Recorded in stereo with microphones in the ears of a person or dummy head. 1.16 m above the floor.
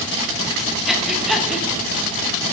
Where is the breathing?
Centre (ahead or behind), 0.6 m.